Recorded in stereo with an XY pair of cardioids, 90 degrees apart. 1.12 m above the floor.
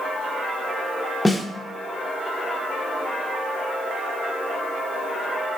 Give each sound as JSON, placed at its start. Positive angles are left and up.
{"t": 1.2, "sound": "a snare drum", "azimuth_deg": 15, "distance_m": 0.7}